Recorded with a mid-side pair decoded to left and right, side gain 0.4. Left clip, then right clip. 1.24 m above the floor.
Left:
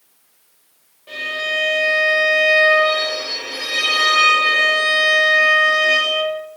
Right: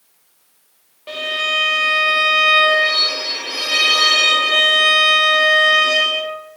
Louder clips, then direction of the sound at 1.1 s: Right 3 dB; 70° right.